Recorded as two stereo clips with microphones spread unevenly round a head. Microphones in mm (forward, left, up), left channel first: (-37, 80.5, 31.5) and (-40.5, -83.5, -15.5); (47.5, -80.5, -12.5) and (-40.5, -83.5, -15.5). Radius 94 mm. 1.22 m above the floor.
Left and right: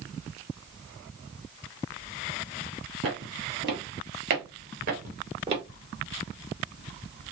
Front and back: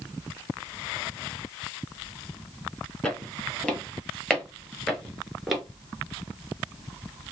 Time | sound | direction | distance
3.0 | footsteps | 75° right | 1.9 m